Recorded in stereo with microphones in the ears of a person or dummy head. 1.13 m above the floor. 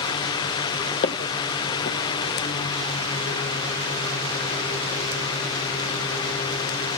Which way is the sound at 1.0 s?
45° left (ahead or behind).